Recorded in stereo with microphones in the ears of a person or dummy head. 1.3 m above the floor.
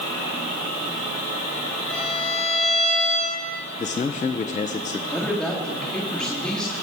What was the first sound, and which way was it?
A violin, 5° left (ahead or behind).